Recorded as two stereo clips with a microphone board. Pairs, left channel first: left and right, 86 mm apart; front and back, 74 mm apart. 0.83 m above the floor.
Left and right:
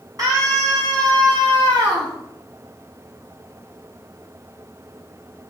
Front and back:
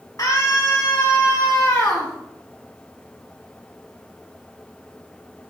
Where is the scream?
45° right, 7 m; by 2.1 s 70° right, 7.5 m.